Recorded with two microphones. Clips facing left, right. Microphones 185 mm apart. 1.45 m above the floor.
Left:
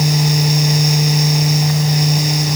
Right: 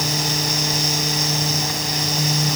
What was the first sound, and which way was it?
Only background noise.